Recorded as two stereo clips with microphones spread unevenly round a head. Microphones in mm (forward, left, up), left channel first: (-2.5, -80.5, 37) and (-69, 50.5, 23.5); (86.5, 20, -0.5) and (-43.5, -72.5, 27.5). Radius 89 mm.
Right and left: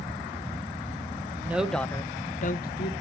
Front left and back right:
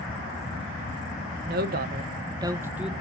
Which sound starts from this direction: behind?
A woman speaking, at 1.4 s.